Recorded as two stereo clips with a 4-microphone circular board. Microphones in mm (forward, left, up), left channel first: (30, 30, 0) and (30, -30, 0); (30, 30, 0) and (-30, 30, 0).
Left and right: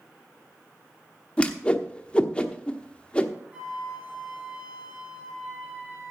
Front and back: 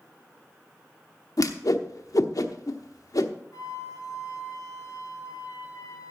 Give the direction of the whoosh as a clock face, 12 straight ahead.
11 o'clock.